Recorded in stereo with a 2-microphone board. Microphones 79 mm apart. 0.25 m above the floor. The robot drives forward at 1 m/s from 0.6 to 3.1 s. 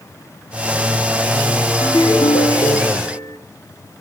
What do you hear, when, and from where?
1.8 s a ringtone: 70° left (ahead or behind), 2.0 m; by 3.4 s 45° left (ahead or behind), 2.5 m